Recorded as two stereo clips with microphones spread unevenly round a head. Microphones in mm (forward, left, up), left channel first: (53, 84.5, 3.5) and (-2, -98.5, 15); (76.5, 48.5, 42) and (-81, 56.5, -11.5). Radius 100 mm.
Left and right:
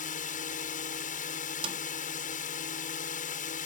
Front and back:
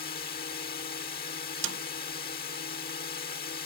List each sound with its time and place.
0.0 s a drone: 25° left
1.6 s a snare drum: 175° right